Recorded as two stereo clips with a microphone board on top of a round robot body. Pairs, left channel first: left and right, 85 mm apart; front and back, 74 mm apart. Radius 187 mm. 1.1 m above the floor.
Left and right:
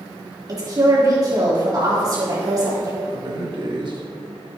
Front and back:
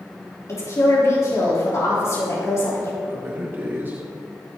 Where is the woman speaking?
45° right, 4 m.